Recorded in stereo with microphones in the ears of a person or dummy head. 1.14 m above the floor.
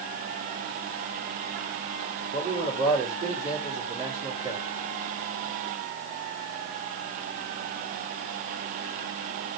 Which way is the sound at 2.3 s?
25° right (ahead or behind).